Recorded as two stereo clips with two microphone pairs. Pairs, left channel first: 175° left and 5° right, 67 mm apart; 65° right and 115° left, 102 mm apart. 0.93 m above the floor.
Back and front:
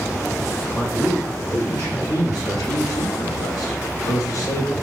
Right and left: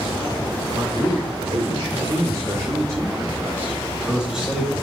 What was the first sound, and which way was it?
A man speaking, 110° left.